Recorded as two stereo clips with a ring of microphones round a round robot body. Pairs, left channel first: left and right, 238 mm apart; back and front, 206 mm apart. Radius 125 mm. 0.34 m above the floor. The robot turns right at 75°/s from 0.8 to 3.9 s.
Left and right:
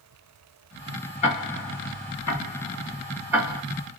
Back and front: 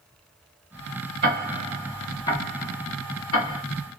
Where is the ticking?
30° left, 1.8 m; by 3.6 s 150° right, 1.8 m.